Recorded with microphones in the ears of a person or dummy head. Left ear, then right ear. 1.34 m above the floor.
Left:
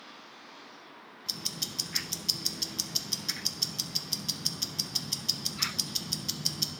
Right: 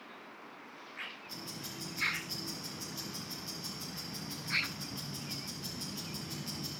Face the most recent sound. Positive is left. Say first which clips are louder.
# left 9 dB
turn(degrees=65)  # may be behind; listen again after turning